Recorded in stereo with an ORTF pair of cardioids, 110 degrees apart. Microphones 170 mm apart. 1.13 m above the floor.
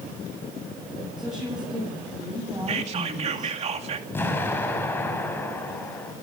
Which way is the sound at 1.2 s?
Straight ahead.